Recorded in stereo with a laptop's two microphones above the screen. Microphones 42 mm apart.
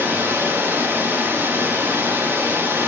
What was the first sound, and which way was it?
Running water, 65° right (ahead or behind).